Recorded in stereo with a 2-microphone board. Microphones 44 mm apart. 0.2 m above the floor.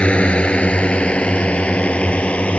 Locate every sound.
0.0 s a drone: 25° left (ahead or behind); by 2.6 s 30° left (ahead or behind)